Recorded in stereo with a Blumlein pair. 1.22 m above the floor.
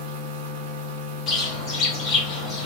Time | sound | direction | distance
0.0 | a machine running | 50° right | 1.1 m
1.3 | a bird | 25° left | 1.3 m